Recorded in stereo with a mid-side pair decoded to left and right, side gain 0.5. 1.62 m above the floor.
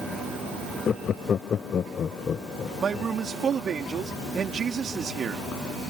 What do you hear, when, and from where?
0.9 s laughter: 50° left
2.8 s a man speaking: 40° right